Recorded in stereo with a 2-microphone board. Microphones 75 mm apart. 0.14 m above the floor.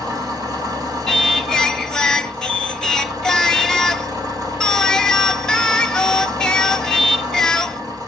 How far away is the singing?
About 0.8 m.